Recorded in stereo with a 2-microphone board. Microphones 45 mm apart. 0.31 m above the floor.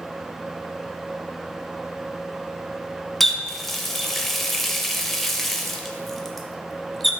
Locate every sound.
3.2 s a running tap: 5° left (ahead or behind), 0.6 m